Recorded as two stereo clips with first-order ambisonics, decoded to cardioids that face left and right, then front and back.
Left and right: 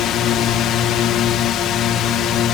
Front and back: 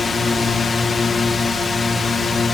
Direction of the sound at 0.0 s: 70° left.